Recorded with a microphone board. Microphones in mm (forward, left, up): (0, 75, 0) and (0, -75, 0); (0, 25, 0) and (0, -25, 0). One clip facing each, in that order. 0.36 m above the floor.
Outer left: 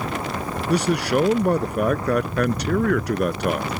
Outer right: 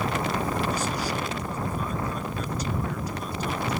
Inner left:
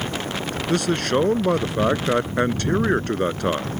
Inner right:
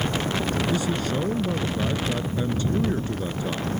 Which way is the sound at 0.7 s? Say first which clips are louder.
Outer left 8 dB, inner left 4 dB; 75° left (ahead or behind).